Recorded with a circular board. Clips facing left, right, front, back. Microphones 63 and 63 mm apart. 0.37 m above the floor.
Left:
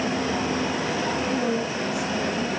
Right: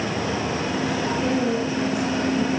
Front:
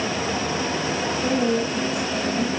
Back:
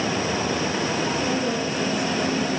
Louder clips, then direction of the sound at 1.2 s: Right 2 dB, front 3 dB; 5° left.